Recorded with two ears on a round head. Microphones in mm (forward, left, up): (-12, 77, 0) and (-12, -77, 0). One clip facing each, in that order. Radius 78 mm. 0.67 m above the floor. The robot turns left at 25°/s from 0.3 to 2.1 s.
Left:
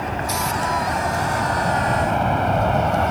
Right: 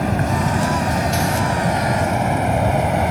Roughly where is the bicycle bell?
No bicycle bell in this recording.